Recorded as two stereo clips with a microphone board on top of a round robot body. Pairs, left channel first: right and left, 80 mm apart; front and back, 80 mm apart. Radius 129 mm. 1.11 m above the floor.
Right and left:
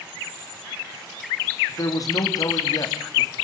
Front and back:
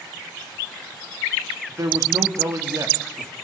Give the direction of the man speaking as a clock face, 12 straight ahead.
4 o'clock.